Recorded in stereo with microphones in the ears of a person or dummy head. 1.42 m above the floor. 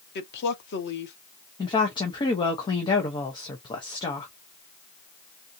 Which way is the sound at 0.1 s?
60° left (ahead or behind).